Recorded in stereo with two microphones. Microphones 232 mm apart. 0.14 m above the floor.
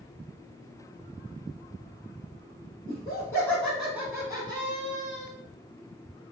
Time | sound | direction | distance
2.9 | laughter | 20° left (ahead or behind) | 1.5 m